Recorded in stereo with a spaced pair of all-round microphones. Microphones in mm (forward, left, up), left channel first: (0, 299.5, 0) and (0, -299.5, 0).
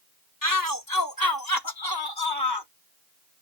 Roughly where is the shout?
Left.